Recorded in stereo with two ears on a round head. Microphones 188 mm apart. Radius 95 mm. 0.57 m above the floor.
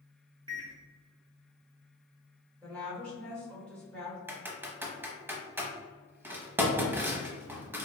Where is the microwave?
20° right (ahead or behind), 0.6 m.